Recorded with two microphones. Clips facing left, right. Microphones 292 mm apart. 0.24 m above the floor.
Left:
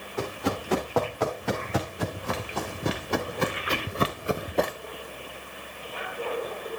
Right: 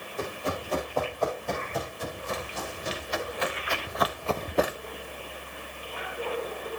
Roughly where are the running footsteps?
Left.